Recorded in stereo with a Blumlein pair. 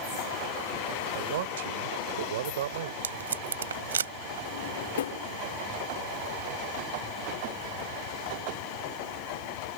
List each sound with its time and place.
1.1 s a man speaking: 60° right
3.0 s tape being pulled: 70° right
4.5 s a drawer: 60° left